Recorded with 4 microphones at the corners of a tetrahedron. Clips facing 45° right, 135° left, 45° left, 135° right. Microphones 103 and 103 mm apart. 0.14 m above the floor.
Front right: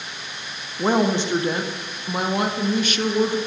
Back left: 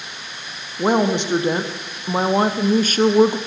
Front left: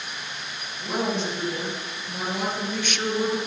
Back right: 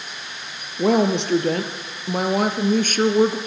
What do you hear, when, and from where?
0.8 s a woman speaking: 150° right, 3.5 m; by 3.4 s 170° left, 2.5 m